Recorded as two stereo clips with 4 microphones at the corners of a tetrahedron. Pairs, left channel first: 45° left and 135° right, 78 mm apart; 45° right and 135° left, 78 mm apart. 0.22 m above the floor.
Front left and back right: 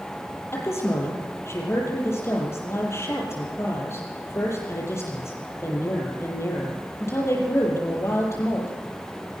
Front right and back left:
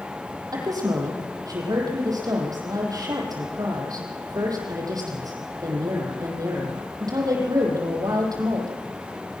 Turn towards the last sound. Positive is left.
turn(degrees=100)